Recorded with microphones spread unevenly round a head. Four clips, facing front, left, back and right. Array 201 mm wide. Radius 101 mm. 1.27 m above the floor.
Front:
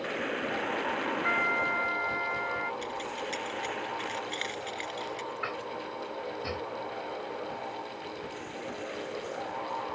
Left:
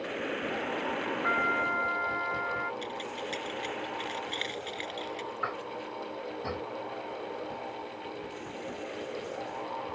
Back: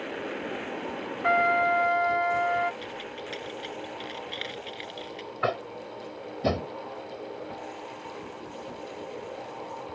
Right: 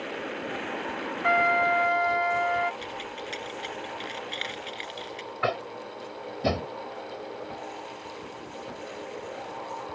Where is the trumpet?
140° right.